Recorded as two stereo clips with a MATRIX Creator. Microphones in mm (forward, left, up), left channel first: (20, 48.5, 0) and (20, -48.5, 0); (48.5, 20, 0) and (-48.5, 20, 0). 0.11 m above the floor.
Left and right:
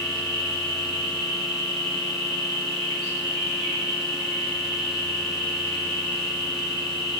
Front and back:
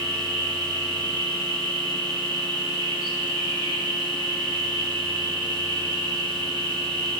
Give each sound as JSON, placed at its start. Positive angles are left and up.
{"t": 0.0, "sound": "an insect", "azimuth_deg": 150, "distance_m": 3.0}